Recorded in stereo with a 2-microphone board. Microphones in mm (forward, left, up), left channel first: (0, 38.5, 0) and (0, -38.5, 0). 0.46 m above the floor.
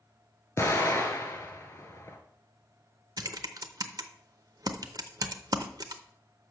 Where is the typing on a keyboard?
55° right (ahead or behind), 0.6 m.